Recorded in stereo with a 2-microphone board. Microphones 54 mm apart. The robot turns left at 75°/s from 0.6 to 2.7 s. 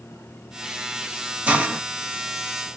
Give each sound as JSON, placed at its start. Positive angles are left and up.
{"t": 1.5, "sound": "a hiss", "side_deg": -25, "distance_m": 0.8}